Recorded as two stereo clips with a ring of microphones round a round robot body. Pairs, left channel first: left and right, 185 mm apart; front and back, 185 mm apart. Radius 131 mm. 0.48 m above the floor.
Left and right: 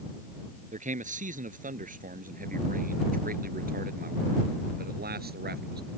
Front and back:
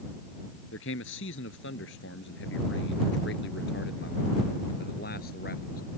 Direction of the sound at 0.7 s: 40° right.